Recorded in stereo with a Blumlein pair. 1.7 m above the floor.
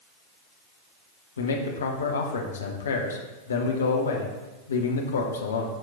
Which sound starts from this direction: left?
A man speaking, at 1.4 s.